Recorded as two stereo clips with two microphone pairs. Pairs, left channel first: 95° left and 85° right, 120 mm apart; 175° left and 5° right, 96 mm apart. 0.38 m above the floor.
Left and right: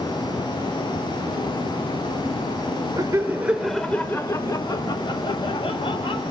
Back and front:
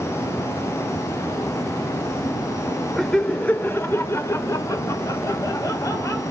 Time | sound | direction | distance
3.0 | laughter | 105° right | 1.0 m